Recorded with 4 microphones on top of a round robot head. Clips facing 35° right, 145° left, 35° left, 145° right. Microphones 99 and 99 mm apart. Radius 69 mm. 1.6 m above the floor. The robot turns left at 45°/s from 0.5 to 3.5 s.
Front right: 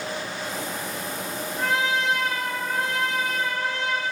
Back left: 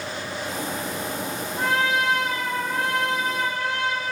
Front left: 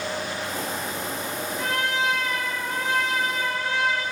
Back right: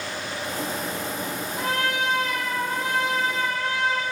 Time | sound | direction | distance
1.6 | a trumpet | 160° right | 4 m